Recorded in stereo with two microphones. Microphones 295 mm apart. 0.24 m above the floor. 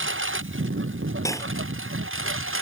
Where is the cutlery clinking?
10° left (ahead or behind).